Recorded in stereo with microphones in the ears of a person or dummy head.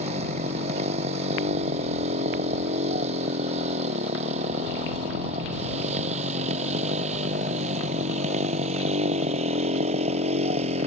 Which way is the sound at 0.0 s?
40° right (ahead or behind).